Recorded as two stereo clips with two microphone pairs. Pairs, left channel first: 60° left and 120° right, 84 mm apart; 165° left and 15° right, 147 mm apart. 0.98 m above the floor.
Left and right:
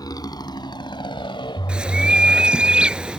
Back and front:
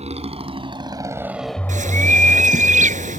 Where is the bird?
40° right.